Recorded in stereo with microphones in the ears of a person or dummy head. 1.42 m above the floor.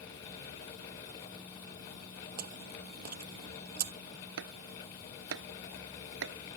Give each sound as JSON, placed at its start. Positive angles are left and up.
{"t": 2.4, "sound": "chewing", "side_deg": -40}
{"t": 4.4, "sound": "chopping", "side_deg": -75}